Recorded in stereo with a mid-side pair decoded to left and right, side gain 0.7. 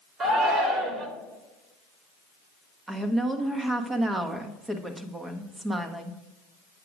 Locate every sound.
0.2 s a shout: 45° right, 2.5 m
2.9 s a woman speaking: 15° right, 1.3 m